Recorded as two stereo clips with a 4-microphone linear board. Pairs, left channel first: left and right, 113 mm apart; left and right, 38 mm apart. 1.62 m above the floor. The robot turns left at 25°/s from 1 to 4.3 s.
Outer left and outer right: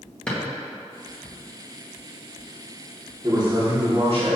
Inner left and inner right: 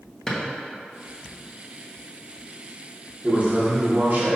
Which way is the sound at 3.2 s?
35° right (ahead or behind).